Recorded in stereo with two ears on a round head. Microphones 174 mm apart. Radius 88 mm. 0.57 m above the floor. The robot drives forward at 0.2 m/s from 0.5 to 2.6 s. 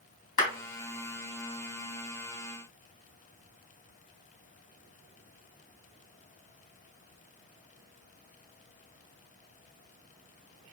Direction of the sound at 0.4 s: 40° left (ahead or behind).